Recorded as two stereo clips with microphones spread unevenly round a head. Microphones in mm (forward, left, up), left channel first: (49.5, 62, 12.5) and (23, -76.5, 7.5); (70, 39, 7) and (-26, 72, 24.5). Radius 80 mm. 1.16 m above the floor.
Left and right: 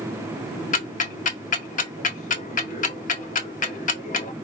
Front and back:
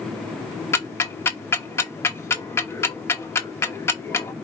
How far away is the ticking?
About 0.9 m.